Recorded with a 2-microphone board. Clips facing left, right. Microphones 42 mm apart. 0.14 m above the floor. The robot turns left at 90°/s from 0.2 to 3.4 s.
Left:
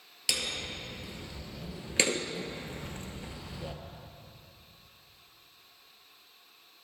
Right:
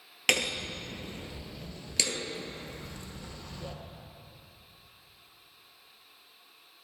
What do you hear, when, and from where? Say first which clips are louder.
0.3 s hammering: right 6 dB; 55° right (ahead or behind), 1.0 m; by 3.8 s 20° left (ahead or behind), 1.0 m